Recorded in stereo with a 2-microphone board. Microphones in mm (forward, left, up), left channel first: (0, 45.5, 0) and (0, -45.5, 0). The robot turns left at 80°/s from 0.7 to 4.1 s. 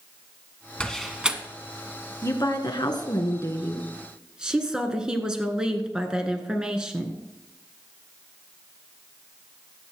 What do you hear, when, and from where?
0.8 s a door slam: 15° left (ahead or behind), 1.1 m; by 1.4 s 15° right (ahead or behind), 1.1 m
2.2 s a woman speaking: 140° left, 1.9 m; by 7.2 s 10° right, 1.9 m